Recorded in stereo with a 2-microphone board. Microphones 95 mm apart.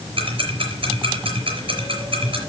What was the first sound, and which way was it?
Ticking, 65° right (ahead or behind).